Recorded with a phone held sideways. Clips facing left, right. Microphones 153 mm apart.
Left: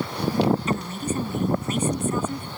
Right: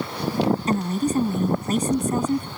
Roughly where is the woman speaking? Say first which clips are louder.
Right 5 dB; right.